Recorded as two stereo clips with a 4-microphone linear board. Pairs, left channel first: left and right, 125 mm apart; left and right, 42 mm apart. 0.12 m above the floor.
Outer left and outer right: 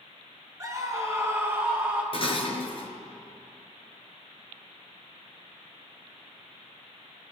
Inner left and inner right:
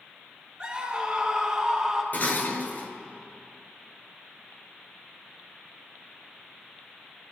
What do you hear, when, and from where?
0.6 s a scream: 25° right (ahead or behind), 1.4 m; by 2.0 s 15° right (ahead or behind), 2.5 m
2.1 s dishes clattering: 50° left (ahead or behind), 1.3 m